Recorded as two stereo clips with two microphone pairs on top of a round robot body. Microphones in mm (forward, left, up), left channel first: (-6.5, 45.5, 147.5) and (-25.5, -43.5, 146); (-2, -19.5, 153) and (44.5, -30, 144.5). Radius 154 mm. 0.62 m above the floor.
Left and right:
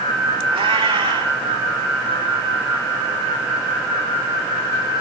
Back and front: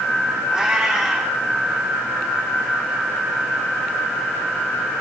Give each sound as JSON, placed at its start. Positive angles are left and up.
{"t": 0.5, "sound": "a cat meowing", "azimuth_deg": -90, "distance_m": 7.5}